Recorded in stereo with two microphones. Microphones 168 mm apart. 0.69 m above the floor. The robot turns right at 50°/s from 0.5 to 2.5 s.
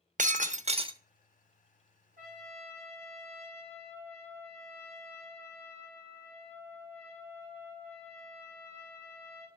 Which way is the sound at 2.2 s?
60° right (ahead or behind).